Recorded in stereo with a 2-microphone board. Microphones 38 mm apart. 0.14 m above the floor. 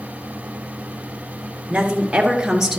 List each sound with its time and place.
1.7 s a woman speaking: 25° right (ahead or behind), 1.8 m; by 2.8 s 10° right (ahead or behind), 1.7 m